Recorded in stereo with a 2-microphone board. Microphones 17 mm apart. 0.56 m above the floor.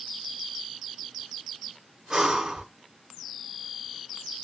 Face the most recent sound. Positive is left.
turn(degrees=-30)  # may be behind; listen again after turning